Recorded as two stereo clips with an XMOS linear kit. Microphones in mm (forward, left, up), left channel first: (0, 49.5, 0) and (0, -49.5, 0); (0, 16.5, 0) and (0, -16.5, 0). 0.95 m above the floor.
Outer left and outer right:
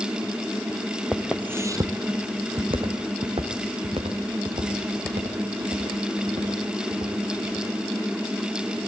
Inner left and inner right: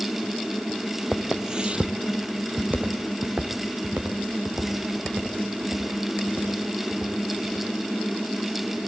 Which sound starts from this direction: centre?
Footsteps, at 1.1 s.